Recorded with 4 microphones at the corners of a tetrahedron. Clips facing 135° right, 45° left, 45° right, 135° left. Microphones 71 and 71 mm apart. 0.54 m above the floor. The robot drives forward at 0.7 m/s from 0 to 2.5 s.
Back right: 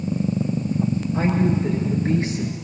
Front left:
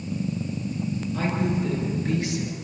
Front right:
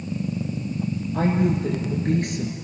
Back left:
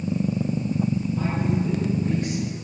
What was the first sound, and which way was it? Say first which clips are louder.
A woman speaking: back right 5 dB, front right 3 dB; 70° right.